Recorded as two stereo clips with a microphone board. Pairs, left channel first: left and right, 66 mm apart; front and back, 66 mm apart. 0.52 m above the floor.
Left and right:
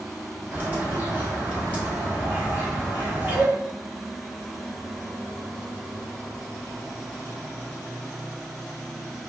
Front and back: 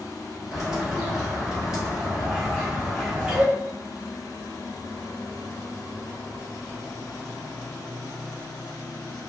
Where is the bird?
115° right, 1.3 m.